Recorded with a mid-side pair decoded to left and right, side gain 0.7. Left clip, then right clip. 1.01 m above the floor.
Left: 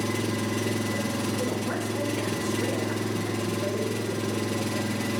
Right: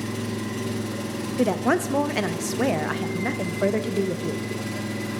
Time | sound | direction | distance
0.0 | an engine running | 25° left | 0.8 m
1.4 | a woman speaking | 55° right | 0.7 m